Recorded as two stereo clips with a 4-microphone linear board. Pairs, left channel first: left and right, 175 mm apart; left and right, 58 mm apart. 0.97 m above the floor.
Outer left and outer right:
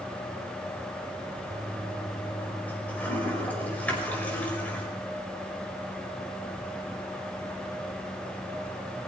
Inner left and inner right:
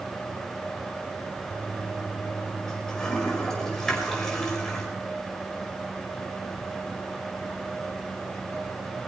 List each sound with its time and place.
1.5 s a toilet flushing: 10° left (ahead or behind), 5 m